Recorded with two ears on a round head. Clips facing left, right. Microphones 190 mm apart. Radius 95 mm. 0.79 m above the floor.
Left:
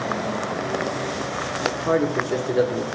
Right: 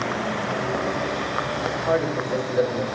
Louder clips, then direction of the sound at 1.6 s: Left 3 dB; 60° left (ahead or behind).